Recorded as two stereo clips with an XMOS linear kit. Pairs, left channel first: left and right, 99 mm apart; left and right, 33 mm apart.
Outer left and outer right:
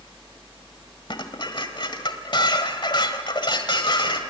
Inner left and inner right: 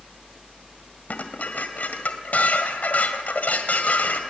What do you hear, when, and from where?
1.1 s dishes clattering: 50° left (ahead or behind), 1.6 m